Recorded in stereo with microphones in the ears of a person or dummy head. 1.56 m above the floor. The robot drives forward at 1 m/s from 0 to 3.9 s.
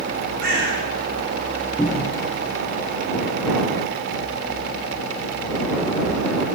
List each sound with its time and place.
0.4 s a bird: 75° right (ahead or behind), 7.5 m
1.8 s a cupboard door: 5° right (ahead or behind), 1.2 m; by 2.2 s centre (ahead or behind), 1.7 m